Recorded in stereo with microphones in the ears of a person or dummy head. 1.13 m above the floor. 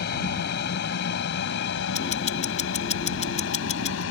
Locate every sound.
0.0 s an aircraft: 55° left (ahead or behind); by 4.1 s 70° left (ahead or behind)
1.9 s ticking: 35° left (ahead or behind)